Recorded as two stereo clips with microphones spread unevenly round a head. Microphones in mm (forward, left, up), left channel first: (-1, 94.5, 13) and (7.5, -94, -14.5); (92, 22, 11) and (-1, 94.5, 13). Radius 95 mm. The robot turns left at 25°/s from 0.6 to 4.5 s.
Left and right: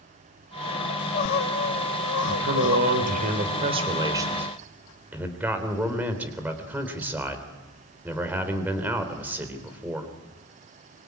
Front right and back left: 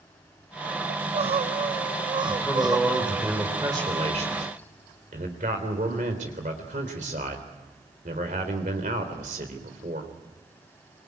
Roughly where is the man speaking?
Behind right.